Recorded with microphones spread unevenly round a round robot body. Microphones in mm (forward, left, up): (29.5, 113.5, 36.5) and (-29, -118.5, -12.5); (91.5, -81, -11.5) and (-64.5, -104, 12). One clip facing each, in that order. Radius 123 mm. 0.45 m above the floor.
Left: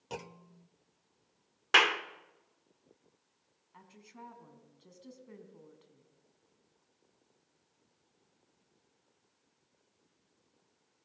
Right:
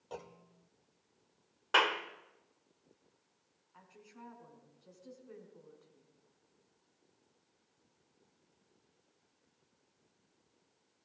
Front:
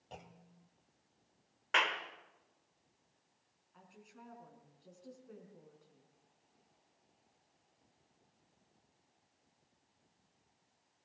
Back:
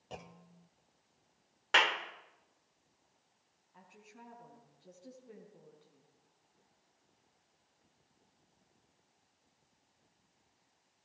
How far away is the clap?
About 0.9 m.